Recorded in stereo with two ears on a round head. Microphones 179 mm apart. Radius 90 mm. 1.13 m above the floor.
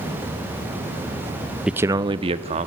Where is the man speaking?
5° right (ahead or behind), 0.7 m; by 2.7 s 35° right (ahead or behind), 1.8 m.